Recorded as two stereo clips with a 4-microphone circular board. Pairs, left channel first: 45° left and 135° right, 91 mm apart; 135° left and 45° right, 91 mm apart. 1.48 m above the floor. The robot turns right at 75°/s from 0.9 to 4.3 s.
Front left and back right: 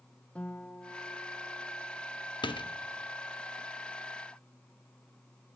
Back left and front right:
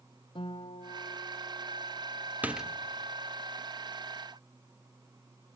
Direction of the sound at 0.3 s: 120° left.